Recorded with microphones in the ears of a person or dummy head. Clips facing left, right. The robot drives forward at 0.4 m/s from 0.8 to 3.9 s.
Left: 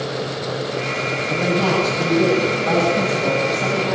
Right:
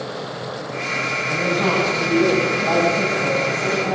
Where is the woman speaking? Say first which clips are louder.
Left 1 dB; 80° left, 8.5 m; by 4.0 s 75° left (ahead or behind), 9 m.